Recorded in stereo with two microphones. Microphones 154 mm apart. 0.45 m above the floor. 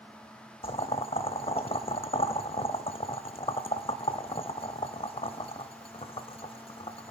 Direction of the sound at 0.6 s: 40° left (ahead or behind).